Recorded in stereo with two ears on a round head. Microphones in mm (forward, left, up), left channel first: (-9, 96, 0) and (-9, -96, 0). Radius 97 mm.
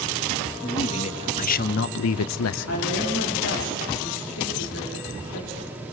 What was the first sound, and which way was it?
A man speaking, 25° left (ahead or behind).